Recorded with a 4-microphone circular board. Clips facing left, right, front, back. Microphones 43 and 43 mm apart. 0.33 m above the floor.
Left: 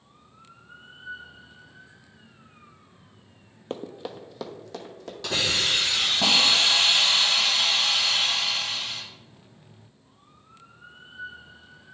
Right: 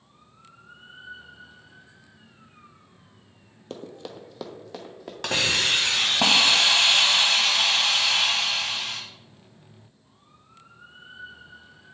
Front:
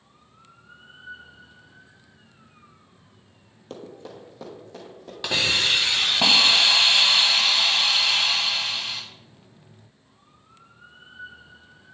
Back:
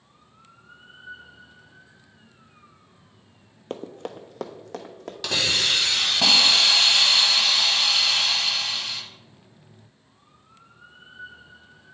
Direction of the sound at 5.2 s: 70° right.